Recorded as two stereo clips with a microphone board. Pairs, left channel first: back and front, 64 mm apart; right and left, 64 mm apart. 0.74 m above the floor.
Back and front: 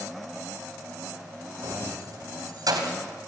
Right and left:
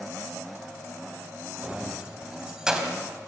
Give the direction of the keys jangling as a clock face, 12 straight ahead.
11 o'clock.